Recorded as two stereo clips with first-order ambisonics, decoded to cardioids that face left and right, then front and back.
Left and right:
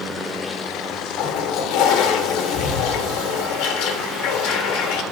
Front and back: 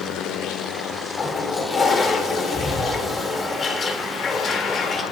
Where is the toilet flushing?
70° left, 2 m.